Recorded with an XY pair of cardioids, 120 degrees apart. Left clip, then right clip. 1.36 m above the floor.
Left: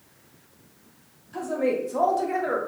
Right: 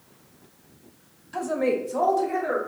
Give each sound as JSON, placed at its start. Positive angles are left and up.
{"t": 1.3, "sound": "a woman speaking", "azimuth_deg": -35, "distance_m": 0.7}